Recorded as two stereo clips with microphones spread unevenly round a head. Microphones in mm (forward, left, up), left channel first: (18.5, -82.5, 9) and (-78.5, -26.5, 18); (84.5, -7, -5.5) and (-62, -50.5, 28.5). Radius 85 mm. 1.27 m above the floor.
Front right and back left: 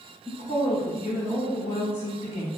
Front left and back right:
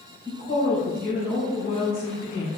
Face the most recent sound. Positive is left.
turn(degrees=0)